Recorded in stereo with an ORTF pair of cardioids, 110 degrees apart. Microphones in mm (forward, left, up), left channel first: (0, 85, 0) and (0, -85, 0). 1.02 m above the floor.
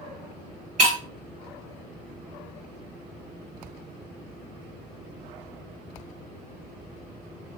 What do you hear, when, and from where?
0.8 s breaking glass: 40° right, 1.2 m